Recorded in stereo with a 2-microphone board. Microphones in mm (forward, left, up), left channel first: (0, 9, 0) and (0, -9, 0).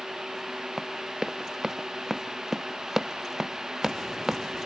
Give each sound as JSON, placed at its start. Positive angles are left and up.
{"t": 0.8, "sound": "running footsteps", "side_deg": -30}